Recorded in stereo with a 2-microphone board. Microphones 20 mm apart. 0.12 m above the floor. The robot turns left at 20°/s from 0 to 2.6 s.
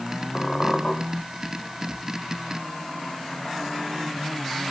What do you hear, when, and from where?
0.3 s a squeak: 55° left (ahead or behind), 5 m; by 0.9 s 40° left (ahead or behind), 5 m